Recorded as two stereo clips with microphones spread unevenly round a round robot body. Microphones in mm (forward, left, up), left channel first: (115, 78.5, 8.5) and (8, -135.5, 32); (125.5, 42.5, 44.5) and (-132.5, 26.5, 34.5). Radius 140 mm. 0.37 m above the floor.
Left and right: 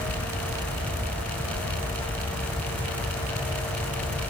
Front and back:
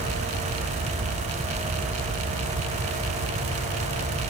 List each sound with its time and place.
Only background noise.